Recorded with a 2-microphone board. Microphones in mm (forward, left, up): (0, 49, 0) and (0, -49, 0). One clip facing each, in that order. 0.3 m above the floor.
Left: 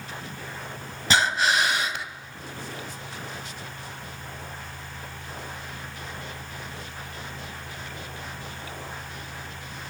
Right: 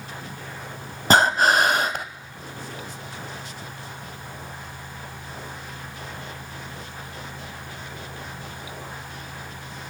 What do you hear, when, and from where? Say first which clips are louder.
1.1 s breathing: right 5 dB; 45° right (ahead or behind), 0.6 m